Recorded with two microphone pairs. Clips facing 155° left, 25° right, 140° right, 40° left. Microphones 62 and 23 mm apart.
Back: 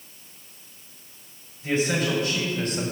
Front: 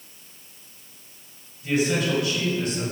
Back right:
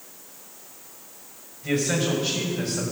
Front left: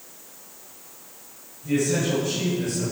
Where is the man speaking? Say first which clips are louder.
Front 1 dB, front left 1 dB; 145° right, 5.5 m; by 2.8 s 155° right, 5.5 m.